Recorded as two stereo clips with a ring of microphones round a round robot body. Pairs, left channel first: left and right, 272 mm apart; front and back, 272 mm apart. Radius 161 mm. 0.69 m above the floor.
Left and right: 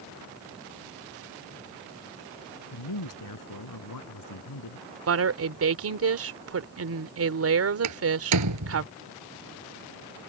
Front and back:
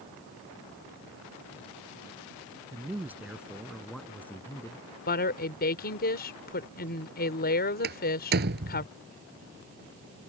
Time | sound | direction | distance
2.7 | a man speaking | 100° left | ?
5.1 | a woman speaking | 60° right | ?
7.8 | a door slam | 120° right | ?